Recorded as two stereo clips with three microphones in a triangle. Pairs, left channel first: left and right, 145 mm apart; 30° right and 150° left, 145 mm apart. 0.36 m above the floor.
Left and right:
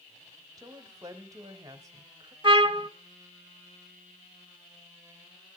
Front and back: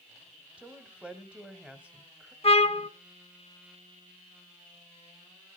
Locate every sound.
0.6 s a woman speaking: 135° right, 1.6 m
2.4 s a trumpet: 50° right, 1.1 m